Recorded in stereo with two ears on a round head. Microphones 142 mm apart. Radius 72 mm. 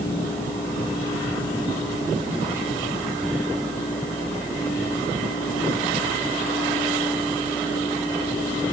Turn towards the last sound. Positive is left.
No sound to turn to.